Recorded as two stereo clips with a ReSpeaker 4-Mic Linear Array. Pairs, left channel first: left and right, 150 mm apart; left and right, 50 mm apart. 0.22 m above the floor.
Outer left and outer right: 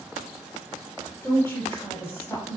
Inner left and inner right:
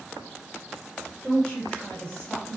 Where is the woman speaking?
20° left (ahead or behind), 1.0 m.